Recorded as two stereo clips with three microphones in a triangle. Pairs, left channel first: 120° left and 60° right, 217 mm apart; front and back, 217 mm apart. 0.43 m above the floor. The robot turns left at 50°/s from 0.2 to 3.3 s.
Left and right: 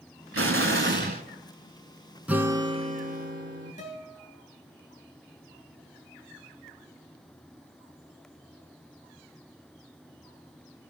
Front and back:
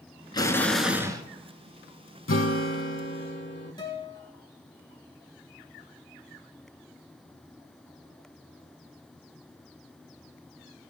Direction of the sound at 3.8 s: 70° left.